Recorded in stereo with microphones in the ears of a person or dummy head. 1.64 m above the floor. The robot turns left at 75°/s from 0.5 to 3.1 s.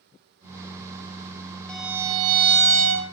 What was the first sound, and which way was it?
A violin, 5° left.